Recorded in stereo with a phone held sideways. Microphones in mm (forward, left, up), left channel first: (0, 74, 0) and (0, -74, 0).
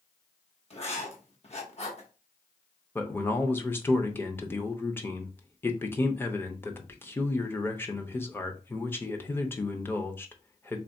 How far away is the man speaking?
About 0.6 m.